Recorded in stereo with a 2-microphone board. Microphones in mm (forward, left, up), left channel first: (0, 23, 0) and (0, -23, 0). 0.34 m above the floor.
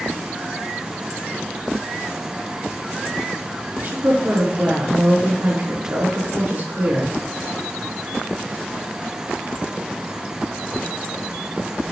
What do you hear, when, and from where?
3.8 s a woman speaking: 40° right (ahead or behind), 6 m